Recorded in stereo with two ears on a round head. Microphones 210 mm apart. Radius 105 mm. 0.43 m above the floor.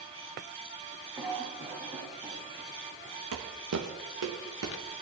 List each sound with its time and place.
1.2 s a cough: 10° right (ahead or behind), 2.5 m
3.3 s footsteps: 65° right (ahead or behind), 1.3 m